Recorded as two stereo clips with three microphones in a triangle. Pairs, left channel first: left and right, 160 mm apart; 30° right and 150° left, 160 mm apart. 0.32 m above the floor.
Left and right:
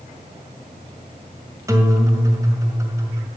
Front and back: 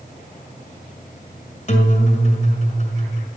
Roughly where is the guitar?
Ahead right.